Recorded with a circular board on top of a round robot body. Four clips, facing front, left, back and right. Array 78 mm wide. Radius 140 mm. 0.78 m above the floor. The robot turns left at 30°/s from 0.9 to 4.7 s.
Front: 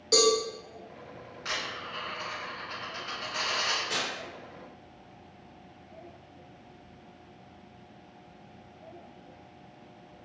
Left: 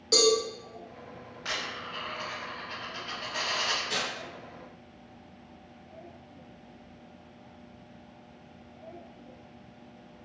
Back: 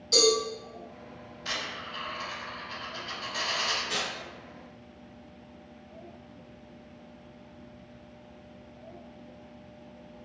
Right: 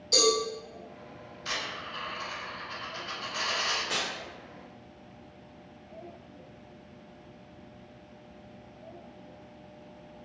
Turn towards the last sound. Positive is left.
turn(degrees=-100)